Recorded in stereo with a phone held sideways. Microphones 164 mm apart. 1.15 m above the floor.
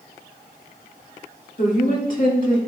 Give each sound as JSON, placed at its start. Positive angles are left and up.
{"t": 1.6, "sound": "a woman speaking", "side_deg": 55, "distance_m": 2.0}